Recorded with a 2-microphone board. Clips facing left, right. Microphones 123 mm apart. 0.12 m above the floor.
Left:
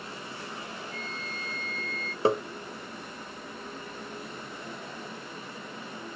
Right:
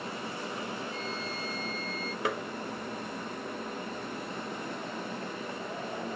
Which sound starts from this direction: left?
Tapping, at 2.2 s.